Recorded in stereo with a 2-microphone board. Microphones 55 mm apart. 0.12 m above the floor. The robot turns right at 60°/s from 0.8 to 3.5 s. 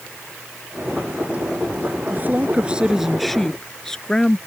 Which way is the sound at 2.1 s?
65° right.